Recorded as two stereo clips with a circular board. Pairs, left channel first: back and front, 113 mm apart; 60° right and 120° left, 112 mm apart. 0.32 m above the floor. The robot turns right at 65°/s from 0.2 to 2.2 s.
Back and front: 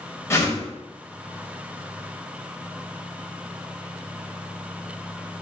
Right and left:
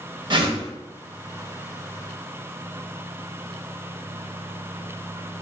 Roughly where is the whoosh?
Behind left.